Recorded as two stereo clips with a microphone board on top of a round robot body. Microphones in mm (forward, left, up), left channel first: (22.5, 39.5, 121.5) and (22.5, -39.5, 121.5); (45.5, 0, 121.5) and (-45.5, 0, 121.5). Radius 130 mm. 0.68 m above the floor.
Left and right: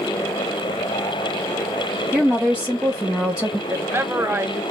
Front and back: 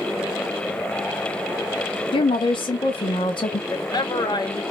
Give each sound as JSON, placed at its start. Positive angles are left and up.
{"t": 2.1, "sound": "a woman speaking", "azimuth_deg": -10, "distance_m": 1.4}
{"t": 3.7, "sound": "a woman speaking", "azimuth_deg": -30, "distance_m": 1.3}